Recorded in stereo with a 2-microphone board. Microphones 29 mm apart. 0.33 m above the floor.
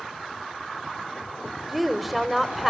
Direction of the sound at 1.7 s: Centre (ahead or behind).